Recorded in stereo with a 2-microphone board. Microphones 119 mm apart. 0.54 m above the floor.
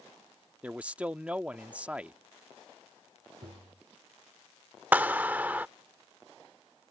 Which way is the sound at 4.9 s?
15° right (ahead or behind).